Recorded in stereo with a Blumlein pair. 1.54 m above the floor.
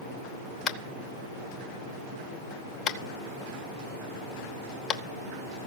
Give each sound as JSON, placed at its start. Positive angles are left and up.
{"t": 0.7, "sound": "tapping", "azimuth_deg": 30, "distance_m": 0.8}